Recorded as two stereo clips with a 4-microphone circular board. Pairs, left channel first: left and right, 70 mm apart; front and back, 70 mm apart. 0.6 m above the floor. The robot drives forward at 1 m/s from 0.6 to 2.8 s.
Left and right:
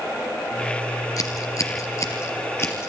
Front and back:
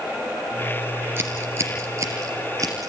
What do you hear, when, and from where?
1.2 s scissors: 125° left, 3 m; by 2.9 s 140° left, 4 m